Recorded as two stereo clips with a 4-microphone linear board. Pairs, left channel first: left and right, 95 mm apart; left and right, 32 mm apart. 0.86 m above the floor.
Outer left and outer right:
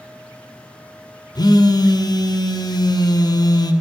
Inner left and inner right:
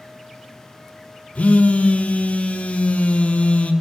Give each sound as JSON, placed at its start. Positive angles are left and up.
{"t": 1.4, "sound": "a phone buzzing", "side_deg": 45, "distance_m": 0.5}